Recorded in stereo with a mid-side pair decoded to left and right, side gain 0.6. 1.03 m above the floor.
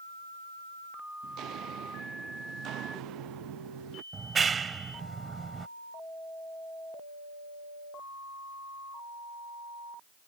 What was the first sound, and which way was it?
Footsteps, 60° right.